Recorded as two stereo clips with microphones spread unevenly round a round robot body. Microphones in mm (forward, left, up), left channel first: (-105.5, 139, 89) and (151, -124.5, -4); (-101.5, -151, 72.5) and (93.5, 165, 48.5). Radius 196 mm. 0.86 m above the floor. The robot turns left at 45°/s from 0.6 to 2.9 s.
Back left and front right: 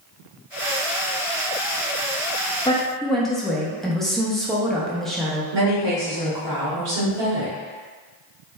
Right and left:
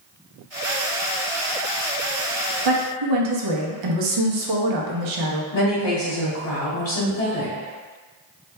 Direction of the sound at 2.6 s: 50° left.